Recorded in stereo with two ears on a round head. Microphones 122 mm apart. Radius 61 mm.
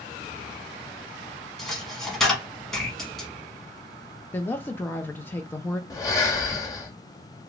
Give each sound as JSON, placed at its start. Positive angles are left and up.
{"t": 1.6, "sound": "a dropped coin", "side_deg": 5, "distance_m": 1.0}
{"t": 4.3, "sound": "a woman speaking", "side_deg": 15, "distance_m": 0.6}
{"t": 5.9, "sound": "breathing", "side_deg": 25, "distance_m": 0.9}